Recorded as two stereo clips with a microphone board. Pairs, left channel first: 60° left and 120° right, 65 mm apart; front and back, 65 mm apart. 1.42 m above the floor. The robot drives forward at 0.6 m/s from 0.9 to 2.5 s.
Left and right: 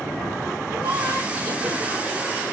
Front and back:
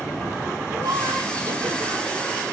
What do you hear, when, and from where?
0.7 s laughter: 155° right, 1.8 m; by 2.1 s 165° right, 2.5 m